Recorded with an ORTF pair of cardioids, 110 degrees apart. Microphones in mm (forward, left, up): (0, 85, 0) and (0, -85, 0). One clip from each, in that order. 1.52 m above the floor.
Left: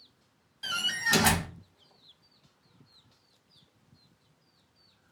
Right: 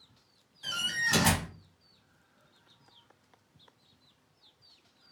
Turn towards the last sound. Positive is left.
turn(degrees=30)